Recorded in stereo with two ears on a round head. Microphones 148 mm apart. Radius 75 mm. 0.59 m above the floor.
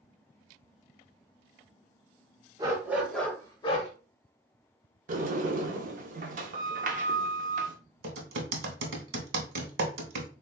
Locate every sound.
2.6 s a dog barking: 25° right (ahead or behind), 1.0 m; by 3.9 s 45° left (ahead or behind), 0.9 m
5.1 s a sliding door: 50° right (ahead or behind), 0.5 m
8.0 s typing on a keyboard: 65° right (ahead or behind), 0.9 m